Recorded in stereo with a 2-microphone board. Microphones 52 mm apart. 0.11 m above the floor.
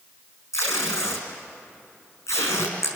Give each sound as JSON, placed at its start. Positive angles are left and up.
{"t": 0.5, "sound": "tape being pulled", "side_deg": 70, "distance_m": 5.0}